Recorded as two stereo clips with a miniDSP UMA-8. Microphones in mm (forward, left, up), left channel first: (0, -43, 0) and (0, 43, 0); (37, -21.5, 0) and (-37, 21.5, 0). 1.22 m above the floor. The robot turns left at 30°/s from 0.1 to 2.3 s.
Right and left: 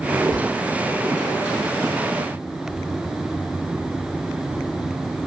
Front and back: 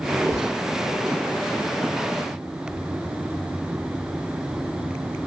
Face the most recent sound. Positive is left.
turn(degrees=40)